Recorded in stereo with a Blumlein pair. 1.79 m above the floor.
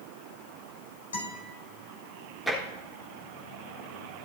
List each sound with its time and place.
1.1 s a guitar: 65° left, 4 m
2.5 s tapping: straight ahead, 3.5 m